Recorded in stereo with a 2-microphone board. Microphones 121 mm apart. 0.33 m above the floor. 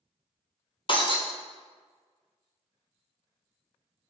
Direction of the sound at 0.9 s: 45° left (ahead or behind).